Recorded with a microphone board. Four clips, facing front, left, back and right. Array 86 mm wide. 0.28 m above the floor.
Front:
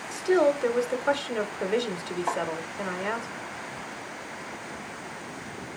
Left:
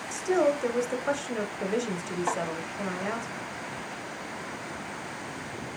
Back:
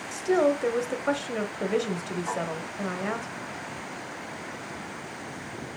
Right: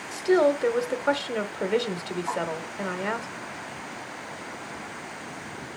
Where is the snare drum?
70° left, 2.5 m.